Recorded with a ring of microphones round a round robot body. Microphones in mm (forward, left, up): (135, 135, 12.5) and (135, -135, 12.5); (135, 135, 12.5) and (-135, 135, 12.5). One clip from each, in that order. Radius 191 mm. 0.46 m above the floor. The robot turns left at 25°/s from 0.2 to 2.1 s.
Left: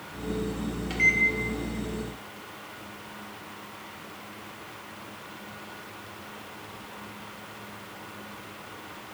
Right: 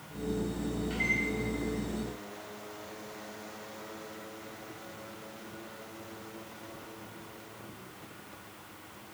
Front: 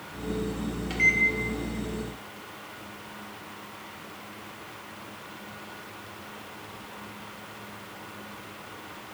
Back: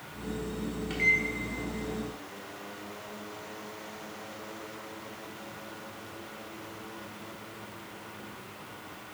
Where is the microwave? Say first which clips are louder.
Left 9 dB, front 3 dB; 75° left, 1.5 m; by 1.2 s 65° left, 1.5 m.